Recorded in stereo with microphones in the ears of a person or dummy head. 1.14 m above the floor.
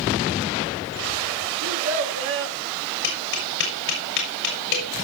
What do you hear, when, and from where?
1.6 s a child speaking: 75° right (ahead or behind), 1.7 m
3.0 s tapping: 60° left (ahead or behind), 5 m